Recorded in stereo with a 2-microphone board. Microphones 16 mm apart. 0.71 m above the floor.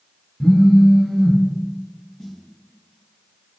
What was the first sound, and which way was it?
A phone buzzing, centre (ahead or behind).